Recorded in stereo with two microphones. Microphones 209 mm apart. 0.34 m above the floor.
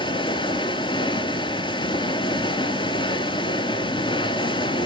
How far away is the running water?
About 0.8 m.